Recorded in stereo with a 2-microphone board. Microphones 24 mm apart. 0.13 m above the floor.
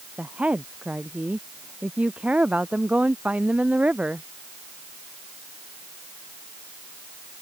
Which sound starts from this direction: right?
A woman speaking, at 0.2 s.